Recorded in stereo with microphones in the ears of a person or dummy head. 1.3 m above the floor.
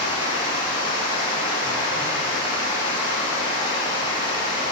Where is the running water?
20° right (ahead or behind), 2.5 m.